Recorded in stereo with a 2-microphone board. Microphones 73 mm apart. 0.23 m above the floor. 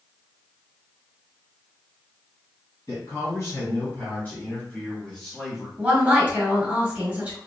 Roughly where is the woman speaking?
Right.